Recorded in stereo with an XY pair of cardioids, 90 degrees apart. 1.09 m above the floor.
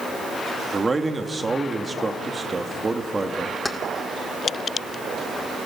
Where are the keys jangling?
15° left, 1.5 m.